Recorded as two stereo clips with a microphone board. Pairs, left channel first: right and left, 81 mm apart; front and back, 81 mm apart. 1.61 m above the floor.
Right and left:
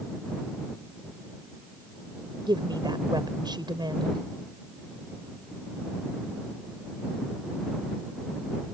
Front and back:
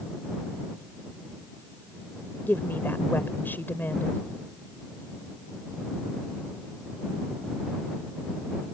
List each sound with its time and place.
2.5 s a woman speaking: 65° left